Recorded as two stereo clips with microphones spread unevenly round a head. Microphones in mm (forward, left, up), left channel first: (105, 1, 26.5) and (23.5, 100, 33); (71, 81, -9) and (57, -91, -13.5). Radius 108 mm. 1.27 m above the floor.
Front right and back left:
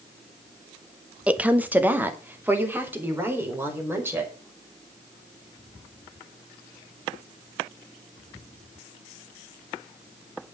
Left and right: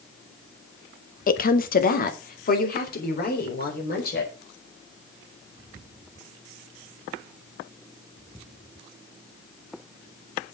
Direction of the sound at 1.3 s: 50° left.